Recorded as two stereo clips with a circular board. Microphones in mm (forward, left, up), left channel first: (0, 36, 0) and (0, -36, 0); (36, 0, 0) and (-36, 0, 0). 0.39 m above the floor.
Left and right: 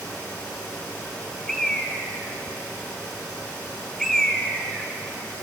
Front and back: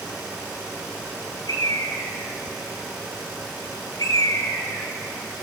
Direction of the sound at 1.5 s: 10° left.